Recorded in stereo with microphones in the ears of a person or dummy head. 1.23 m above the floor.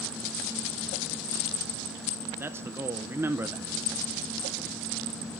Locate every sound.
2.4 s a man speaking: 10° right (ahead or behind), 0.5 m